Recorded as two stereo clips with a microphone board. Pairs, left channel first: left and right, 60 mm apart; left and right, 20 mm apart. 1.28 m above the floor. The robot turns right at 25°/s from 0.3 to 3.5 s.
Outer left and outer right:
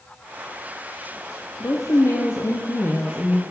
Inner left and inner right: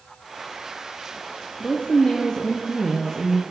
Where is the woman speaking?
95° left, 0.6 m; by 3.4 s 140° left, 0.6 m.